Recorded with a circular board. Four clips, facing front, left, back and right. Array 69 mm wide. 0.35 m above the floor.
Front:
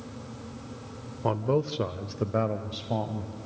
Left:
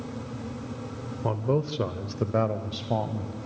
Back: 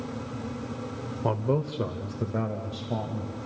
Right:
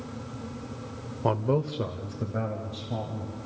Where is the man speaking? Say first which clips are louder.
Right 1 dB, front 1 dB; 80° right, 0.8 m; by 3.3 s 70° left, 1.7 m.